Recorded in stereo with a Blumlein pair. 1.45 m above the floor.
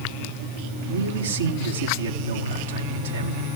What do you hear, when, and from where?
0.9 s a man speaking: 65° right, 2.5 m